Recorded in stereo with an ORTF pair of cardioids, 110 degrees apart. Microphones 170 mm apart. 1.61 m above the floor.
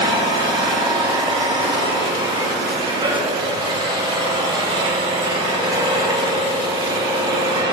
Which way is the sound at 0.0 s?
25° right.